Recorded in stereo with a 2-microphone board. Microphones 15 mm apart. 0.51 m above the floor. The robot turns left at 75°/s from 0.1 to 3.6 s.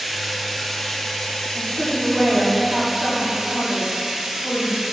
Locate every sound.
0.0 s running water: 170° right, 0.9 m; by 4.9 s 75° right, 0.9 m
1.5 s a woman speaking: 5° left, 1.5 m; by 4.8 s 150° right, 1.5 m